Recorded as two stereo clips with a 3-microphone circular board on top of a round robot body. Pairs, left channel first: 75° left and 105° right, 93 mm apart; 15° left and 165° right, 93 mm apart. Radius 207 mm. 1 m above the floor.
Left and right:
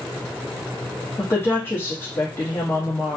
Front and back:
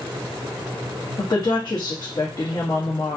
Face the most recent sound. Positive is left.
turn(degrees=25)